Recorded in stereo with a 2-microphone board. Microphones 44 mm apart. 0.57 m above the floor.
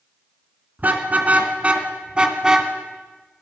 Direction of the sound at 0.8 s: 40° right (ahead or behind).